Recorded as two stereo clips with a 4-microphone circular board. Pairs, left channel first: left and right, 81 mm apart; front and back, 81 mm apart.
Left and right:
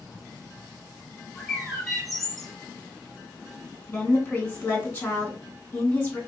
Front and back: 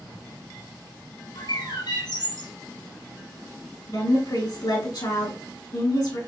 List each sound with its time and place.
1.4 s a bird: 5° left, 2.5 m
3.9 s a woman speaking: 20° left, 2.5 m